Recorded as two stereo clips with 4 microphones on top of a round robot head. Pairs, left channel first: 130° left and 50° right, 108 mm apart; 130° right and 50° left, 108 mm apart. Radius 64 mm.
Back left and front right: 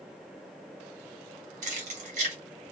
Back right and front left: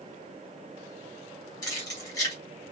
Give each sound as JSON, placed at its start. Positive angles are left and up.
{"t": 1.6, "sound": "keys jangling", "azimuth_deg": -70, "distance_m": 1.8}